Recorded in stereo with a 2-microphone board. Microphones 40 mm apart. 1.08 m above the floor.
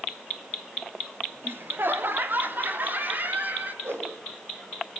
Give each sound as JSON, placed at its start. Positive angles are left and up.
{"t": 1.4, "sound": "laughter", "side_deg": -65, "distance_m": 1.9}
{"t": 3.8, "sound": "a whoosh", "side_deg": -80, "distance_m": 5.0}